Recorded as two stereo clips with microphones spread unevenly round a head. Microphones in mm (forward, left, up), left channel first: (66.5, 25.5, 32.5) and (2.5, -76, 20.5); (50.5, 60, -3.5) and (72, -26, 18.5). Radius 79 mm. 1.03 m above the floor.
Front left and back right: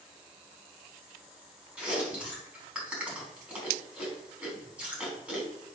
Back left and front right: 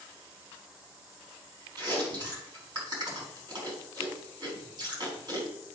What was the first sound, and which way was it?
Chewing, 40° right.